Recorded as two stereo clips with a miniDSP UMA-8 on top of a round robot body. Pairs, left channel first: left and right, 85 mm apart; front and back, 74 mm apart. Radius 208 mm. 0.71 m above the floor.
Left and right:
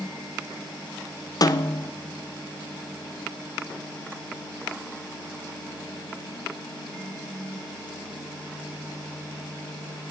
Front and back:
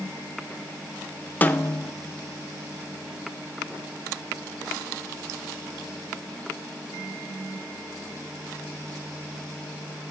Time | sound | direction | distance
1.4 | a snare drum | 60° left | 0.6 m